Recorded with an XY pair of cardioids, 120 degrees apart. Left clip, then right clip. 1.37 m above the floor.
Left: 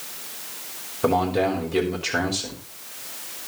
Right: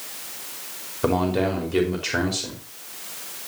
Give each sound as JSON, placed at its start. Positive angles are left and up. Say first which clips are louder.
{"t": 1.0, "sound": "a man speaking", "louder": "left 1 dB", "azimuth_deg": -5, "distance_m": 4.5}